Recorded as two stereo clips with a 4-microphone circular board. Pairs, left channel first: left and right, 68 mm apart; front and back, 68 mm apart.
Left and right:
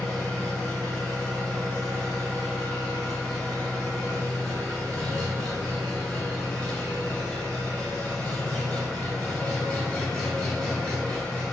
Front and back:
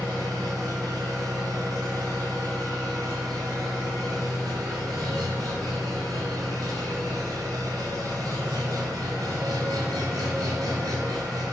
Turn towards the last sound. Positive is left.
turn(degrees=170)